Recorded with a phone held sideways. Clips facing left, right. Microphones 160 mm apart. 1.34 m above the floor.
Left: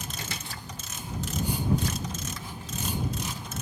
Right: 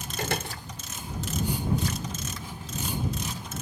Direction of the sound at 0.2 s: 65° right (ahead or behind).